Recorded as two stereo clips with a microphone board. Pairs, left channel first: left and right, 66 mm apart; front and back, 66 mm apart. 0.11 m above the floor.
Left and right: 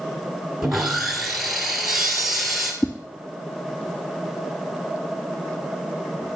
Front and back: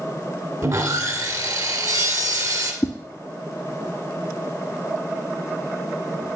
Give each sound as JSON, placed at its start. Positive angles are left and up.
{"t": 0.6, "sound": "sawing", "azimuth_deg": -175, "distance_m": 1.6}
{"t": 2.8, "sound": "a whoosh", "azimuth_deg": 40, "distance_m": 0.8}